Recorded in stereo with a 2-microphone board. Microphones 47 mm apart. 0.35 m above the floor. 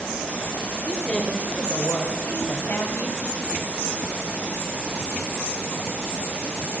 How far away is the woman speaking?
About 1.4 m.